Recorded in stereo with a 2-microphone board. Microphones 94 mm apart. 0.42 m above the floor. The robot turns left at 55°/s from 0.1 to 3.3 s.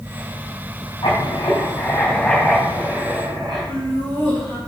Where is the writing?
65° left, 3 m; by 3.7 s 60° right, 3 m.